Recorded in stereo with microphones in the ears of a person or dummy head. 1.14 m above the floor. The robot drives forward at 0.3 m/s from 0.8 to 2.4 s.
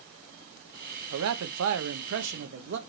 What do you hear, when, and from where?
1.1 s a man speaking: 85° right, 0.6 m; by 2.8 s 60° right (ahead or behind), 0.7 m